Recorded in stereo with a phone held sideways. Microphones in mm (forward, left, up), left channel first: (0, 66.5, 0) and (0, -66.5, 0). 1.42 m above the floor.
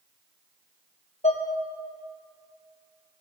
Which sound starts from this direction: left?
Dishes clattering, at 1.2 s.